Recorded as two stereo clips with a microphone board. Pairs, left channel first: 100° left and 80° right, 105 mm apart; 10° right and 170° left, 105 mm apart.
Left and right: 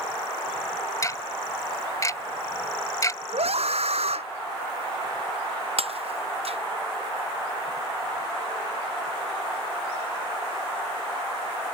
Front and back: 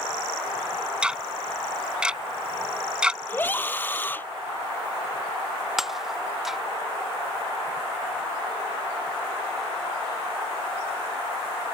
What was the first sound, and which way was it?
Ticking, 95° left.